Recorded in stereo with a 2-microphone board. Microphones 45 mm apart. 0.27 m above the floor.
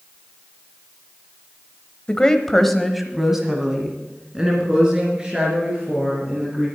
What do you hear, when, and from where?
2.1 s a woman speaking: 20° left (ahead or behind), 1.1 m; by 6.7 s 20° right (ahead or behind), 5.5 m